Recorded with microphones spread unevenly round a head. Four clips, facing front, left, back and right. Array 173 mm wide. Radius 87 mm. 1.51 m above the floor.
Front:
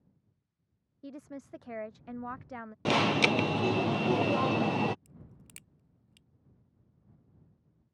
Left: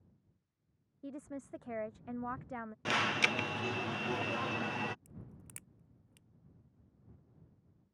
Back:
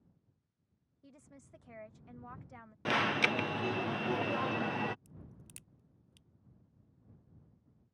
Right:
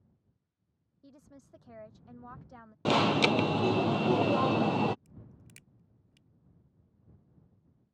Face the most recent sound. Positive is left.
turn(degrees=80)